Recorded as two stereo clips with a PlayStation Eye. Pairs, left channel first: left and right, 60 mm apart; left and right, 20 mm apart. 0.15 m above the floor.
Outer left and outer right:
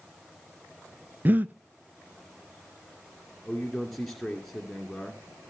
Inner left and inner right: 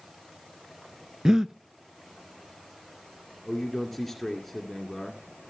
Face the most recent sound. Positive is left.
turn(degrees=5)  # may be behind; listen again after turning